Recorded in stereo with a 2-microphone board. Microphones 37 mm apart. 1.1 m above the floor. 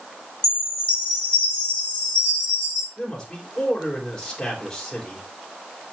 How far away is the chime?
About 4 m.